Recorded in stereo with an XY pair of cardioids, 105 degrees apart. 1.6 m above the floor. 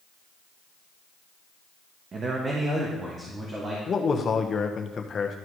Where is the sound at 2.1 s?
45° right, 1.5 m; by 3.8 s 35° right, 3 m.